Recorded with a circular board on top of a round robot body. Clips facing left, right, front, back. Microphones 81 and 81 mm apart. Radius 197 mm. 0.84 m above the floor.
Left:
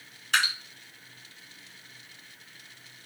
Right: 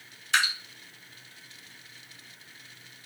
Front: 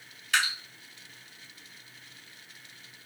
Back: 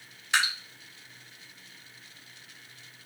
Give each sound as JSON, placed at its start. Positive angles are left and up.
{"t": 0.3, "sound": "dripping", "azimuth_deg": 115, "distance_m": 2.0}